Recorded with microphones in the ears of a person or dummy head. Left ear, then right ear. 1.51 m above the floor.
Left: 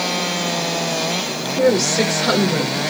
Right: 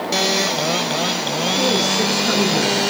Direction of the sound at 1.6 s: 45° left (ahead or behind).